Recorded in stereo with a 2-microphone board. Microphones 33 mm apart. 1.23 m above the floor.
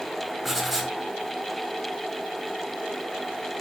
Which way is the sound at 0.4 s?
Centre (ahead or behind).